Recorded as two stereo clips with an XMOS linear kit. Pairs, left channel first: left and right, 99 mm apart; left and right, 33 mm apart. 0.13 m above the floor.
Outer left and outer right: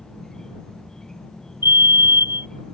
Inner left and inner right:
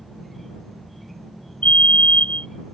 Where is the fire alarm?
45° left (ahead or behind).